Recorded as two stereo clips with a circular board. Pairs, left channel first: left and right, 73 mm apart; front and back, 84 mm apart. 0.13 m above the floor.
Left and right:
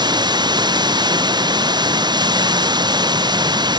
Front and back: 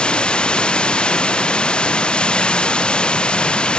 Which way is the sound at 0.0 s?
80° right.